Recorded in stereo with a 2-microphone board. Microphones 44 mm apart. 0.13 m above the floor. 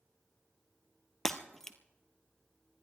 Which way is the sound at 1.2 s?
5° left (ahead or behind).